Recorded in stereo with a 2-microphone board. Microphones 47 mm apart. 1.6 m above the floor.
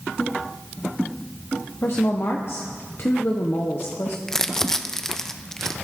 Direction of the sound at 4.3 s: 10° left (ahead or behind).